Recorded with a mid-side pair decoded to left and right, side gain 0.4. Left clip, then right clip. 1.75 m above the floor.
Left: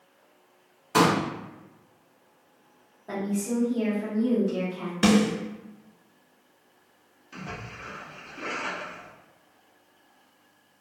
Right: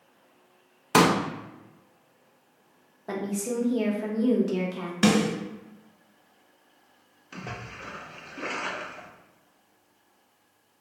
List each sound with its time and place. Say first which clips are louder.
0.9 s a pop: right 1 dB; 70° right, 0.5 m
3.1 s a woman speaking: even; 55° right, 0.9 m
5.0 s a snare drum: left 1 dB; 20° right, 1.3 m
7.3 s a splash: even; 45° right, 0.7 m